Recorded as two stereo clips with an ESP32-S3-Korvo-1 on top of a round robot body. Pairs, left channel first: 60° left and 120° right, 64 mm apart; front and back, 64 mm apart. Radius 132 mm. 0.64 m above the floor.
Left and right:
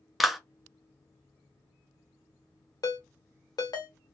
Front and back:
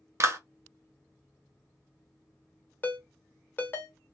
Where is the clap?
155° left, 0.8 m.